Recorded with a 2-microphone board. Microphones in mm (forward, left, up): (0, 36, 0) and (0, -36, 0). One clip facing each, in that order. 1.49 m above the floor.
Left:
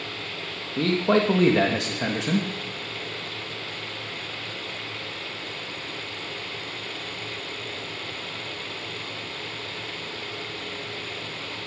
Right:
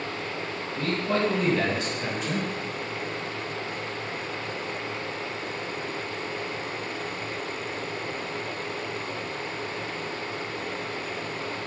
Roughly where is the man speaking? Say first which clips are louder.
Left 5 dB; left.